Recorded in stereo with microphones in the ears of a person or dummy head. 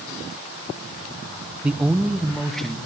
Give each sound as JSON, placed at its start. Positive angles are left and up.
{"t": 1.6, "sound": "a man speaking", "side_deg": -5, "distance_m": 0.8}